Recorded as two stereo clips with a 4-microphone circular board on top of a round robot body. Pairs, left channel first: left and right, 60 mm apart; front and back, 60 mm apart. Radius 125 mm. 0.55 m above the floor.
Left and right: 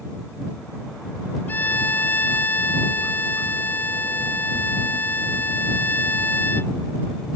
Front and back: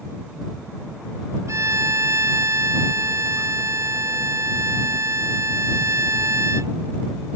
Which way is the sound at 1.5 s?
150° left.